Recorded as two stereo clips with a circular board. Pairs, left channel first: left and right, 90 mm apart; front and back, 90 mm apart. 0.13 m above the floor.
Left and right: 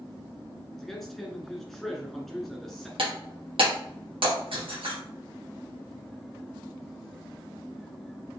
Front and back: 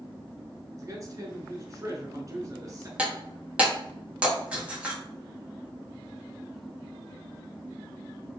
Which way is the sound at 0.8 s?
175° left.